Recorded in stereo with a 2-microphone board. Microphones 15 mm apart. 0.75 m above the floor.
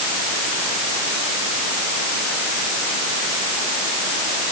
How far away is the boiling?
I don't hear boiling.